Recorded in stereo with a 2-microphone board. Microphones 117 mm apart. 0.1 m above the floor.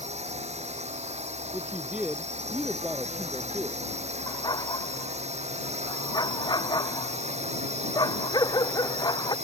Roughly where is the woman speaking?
Centre.